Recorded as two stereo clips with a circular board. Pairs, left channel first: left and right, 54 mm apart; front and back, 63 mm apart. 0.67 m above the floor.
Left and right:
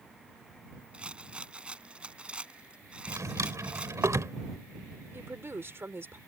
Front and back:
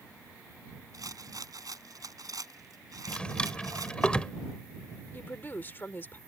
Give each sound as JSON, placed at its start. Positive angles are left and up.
{"t": 0.9, "sound": "a rattle", "azimuth_deg": -160}
{"t": 3.1, "sound": "a drawer", "azimuth_deg": -70}
{"t": 5.1, "sound": "a woman speaking", "azimuth_deg": -50}